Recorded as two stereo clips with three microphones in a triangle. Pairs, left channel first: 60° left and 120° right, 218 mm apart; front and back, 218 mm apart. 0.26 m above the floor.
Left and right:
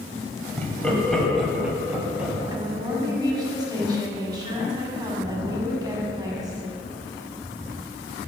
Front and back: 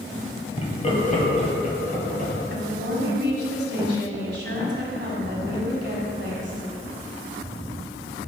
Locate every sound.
0.6 s laughter: 15° right, 1.3 m; by 2.3 s 40° right, 1.8 m
2.5 s a woman speaking: 175° left, 1.5 m